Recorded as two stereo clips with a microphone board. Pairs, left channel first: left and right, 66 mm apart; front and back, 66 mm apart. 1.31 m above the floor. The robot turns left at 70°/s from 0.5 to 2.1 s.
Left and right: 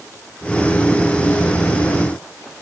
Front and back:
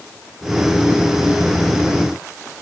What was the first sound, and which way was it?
Only background noise.